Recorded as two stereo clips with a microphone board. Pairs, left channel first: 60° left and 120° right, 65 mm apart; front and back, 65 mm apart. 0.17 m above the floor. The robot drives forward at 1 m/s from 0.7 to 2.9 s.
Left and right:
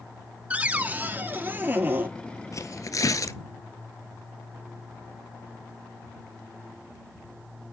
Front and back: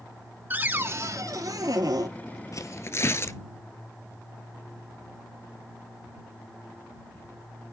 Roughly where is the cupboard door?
Behind.